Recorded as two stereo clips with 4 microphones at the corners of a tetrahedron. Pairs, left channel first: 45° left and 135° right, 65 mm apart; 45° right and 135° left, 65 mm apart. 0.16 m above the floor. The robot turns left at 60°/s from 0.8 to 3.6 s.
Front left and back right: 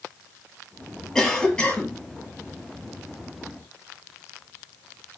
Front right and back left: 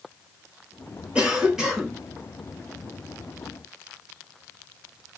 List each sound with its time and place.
1.1 s a cough: 105° left, 1.1 m; by 2.0 s 60° left, 1.1 m